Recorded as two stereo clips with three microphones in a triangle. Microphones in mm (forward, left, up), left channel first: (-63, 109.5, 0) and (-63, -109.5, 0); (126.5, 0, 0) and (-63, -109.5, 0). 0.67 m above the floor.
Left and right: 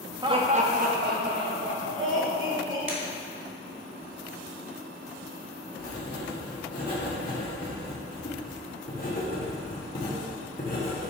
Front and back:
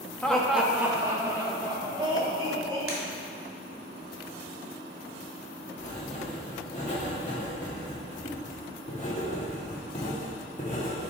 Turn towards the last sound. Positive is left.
turn(degrees=70)